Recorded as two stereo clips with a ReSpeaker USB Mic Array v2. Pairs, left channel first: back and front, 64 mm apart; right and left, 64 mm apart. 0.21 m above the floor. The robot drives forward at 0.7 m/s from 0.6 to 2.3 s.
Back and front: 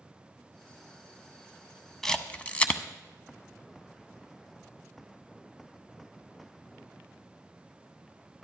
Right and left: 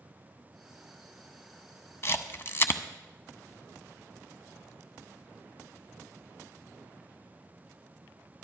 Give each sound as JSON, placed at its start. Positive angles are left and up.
{"t": 2.0, "sound": "a camera shutter", "azimuth_deg": -100, "distance_m": 0.7}